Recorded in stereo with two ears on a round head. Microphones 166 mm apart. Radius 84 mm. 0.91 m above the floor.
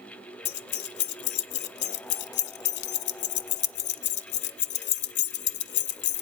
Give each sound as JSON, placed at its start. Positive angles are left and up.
{"t": 0.5, "sound": "keys jangling", "side_deg": 65, "distance_m": 0.6}